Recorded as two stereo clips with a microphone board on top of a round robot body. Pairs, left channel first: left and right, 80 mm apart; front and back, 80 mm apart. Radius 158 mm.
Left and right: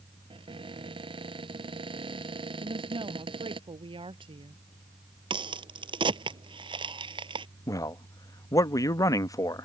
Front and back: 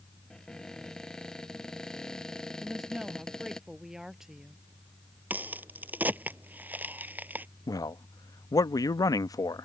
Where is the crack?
110° right.